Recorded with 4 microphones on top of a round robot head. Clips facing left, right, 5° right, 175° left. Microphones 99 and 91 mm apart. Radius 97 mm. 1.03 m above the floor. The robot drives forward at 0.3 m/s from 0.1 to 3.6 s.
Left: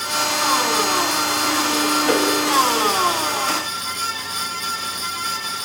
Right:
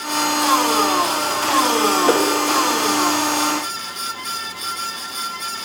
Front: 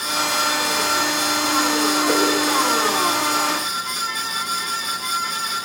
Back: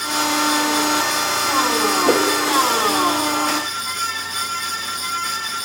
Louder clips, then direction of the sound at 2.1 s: Right 2 dB, back 4 dB; 145° right.